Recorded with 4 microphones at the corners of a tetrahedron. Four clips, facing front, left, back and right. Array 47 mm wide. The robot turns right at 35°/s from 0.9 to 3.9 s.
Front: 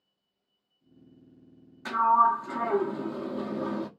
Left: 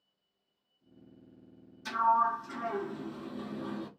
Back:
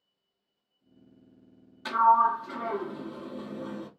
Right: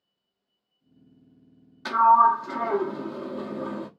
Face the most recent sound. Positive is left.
turn(degrees=-25)